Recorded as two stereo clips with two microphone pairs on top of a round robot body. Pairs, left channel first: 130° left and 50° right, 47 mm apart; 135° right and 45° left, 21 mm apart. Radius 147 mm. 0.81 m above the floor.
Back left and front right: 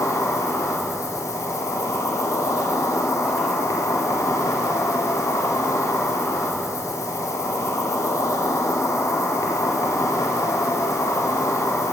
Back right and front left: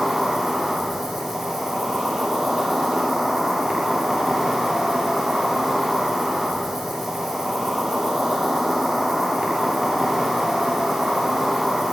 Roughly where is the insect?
Behind left.